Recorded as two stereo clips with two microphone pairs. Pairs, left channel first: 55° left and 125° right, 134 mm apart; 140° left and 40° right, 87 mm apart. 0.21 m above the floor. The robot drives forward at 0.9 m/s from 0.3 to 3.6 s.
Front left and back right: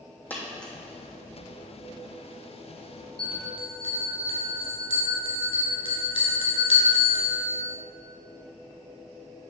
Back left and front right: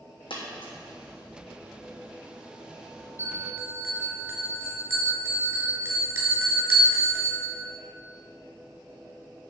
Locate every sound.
0.3 s a dropped coin: 135° left, 2.5 m; by 0.7 s 140° left, 2.5 m
3.2 s a bell: 15° left, 2 m